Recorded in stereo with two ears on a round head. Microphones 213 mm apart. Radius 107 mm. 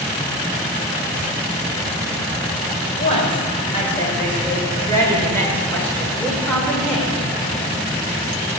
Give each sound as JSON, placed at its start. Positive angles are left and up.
{"t": 3.0, "sound": "a woman speaking", "side_deg": 25, "distance_m": 4.5}